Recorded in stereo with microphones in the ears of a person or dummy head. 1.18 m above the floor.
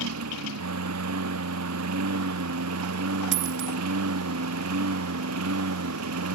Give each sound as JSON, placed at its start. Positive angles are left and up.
{"t": 0.0, "sound": "a lawn mower", "side_deg": -80}
{"t": 3.3, "sound": "a dropped coin", "side_deg": -60}